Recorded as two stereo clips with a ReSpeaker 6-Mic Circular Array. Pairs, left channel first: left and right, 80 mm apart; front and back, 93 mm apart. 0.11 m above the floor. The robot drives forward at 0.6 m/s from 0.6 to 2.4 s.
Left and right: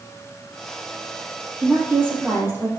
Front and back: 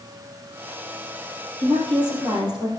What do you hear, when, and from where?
1.6 s a woman speaking: 150° right, 3 m; by 2.7 s 155° right, 3.5 m